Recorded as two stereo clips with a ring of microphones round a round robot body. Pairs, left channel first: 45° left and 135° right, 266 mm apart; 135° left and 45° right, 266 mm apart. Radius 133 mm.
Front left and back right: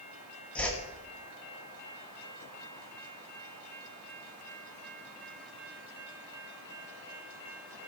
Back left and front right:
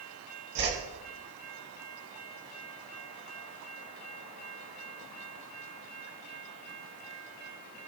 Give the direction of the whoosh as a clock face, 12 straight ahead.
1 o'clock.